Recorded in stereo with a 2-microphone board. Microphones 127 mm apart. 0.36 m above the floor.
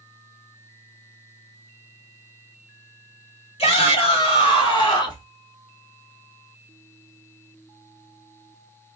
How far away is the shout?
About 1.8 m.